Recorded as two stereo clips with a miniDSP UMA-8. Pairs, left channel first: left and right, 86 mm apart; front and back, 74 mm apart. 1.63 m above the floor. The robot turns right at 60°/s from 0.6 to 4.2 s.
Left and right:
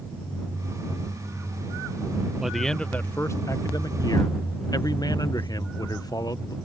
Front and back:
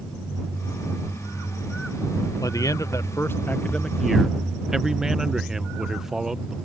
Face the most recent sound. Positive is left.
turn(degrees=100)